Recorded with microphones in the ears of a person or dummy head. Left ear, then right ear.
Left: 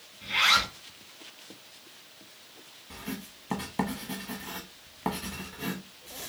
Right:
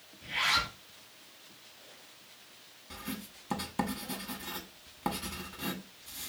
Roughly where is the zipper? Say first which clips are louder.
Left 6 dB; left.